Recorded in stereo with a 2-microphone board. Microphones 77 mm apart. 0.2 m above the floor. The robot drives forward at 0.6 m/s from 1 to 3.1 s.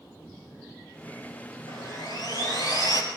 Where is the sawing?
60° left (ahead or behind), 5 m; by 3.0 s 50° left (ahead or behind), 5 m.